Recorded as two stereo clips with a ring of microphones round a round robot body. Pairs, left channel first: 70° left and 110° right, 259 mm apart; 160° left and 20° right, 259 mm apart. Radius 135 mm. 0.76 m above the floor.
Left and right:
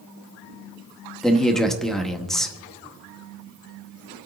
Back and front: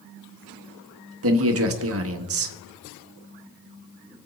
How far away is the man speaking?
About 1.5 m.